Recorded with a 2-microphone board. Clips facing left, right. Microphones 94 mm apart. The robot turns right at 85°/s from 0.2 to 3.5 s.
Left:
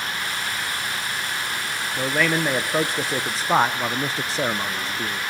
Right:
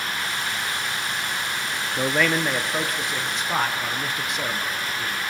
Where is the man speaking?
20° right, 0.6 m; by 5.2 s 110° left, 0.6 m.